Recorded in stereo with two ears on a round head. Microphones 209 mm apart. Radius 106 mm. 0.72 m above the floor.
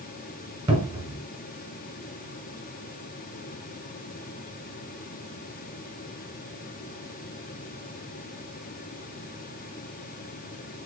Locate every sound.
0.7 s a cupboard door: 20° right (ahead or behind), 1.3 m